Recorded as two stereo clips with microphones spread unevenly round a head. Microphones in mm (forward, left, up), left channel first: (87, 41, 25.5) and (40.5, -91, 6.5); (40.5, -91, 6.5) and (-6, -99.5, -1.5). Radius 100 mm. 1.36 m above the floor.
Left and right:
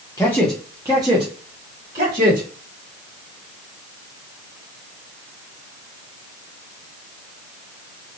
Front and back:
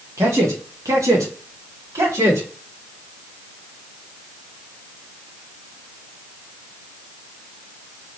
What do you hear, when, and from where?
0.2 s a man speaking: 145° left, 0.7 m; by 2.5 s 155° right, 1.5 m